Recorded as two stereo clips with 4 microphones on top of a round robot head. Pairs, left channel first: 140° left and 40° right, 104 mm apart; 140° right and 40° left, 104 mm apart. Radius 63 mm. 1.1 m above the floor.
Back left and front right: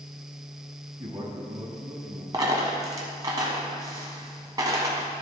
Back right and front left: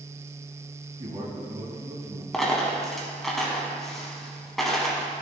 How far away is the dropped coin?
About 1.1 m.